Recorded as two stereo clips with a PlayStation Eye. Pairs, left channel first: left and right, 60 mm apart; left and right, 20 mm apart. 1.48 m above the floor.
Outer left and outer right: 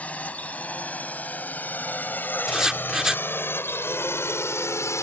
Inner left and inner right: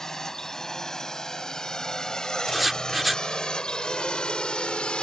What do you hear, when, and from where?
0.0 s a drone: 25° left (ahead or behind); by 5.0 s 55° left (ahead or behind)
2.5 s writing: 10° right (ahead or behind)